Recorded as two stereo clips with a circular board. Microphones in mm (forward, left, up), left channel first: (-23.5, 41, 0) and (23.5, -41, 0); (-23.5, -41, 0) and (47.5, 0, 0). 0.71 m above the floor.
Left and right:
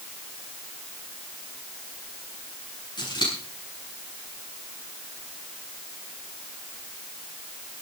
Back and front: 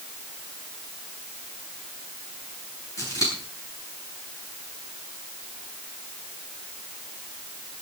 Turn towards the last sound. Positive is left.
turn(degrees=160)